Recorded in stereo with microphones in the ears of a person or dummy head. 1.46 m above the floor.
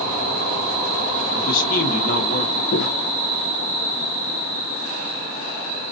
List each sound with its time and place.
1.3 s a man speaking: 40° left (ahead or behind), 1.5 m
2.7 s footsteps: 45° left (ahead or behind), 1.9 m